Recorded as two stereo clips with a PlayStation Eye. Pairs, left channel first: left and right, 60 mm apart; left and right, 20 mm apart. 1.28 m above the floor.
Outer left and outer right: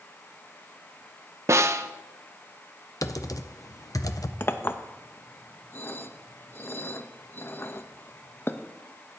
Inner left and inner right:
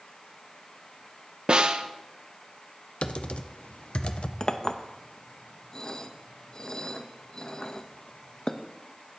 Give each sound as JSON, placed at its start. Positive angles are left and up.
{"t": 1.5, "sound": "a snare drum", "side_deg": -50, "distance_m": 0.5}
{"t": 3.0, "sound": "typing on a keyboard", "side_deg": 65, "distance_m": 0.6}
{"t": 4.4, "sound": "a clink", "side_deg": 40, "distance_m": 0.6}